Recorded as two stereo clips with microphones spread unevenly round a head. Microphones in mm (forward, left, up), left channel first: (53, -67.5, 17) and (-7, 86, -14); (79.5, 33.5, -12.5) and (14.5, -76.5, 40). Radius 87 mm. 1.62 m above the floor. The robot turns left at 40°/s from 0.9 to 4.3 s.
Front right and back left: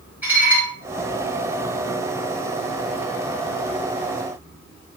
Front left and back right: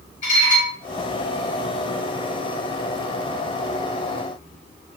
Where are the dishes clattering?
30° left, 5.5 m.